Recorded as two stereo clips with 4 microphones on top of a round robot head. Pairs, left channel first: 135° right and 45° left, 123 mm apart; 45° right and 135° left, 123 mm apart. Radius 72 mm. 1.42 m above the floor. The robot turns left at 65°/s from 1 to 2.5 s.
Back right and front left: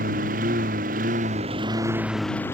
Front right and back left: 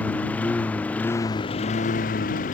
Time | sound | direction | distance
0.0 | a lawn mower | 35° left | ?